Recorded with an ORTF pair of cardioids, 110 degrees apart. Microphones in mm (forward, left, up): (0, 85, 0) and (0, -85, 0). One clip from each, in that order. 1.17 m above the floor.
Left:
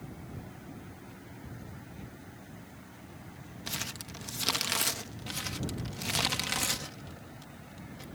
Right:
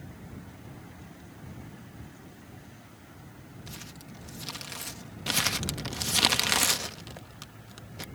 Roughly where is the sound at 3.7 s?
Ahead left.